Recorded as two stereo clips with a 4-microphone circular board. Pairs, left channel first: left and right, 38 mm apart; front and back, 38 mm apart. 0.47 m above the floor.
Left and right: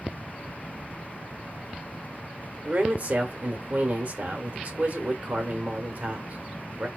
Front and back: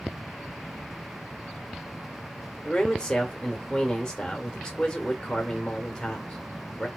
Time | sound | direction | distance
2.6 | a man speaking | 60° right | 1.1 m